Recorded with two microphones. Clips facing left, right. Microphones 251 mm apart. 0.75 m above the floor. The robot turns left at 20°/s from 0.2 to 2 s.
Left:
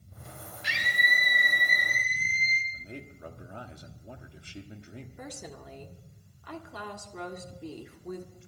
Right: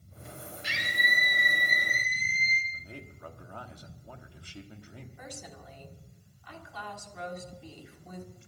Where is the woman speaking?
60° left (ahead or behind), 1.6 m.